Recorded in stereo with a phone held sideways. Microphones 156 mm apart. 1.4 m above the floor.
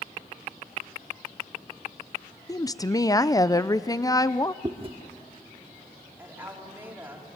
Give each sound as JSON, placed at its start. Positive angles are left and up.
{"t": 2.5, "sound": "a woman speaking", "side_deg": 25, "distance_m": 0.5}
{"t": 4.6, "sound": "chewing", "side_deg": -35, "distance_m": 1.1}
{"t": 6.2, "sound": "a woman speaking", "side_deg": -15, "distance_m": 4.0}